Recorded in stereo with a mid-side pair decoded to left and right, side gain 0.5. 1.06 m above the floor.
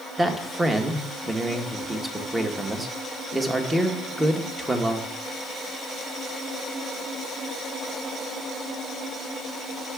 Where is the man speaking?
15° right, 1.1 m.